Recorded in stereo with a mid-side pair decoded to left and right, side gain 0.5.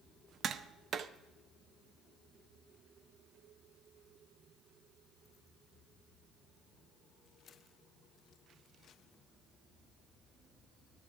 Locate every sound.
0.4 s tapping: 50° right, 0.6 m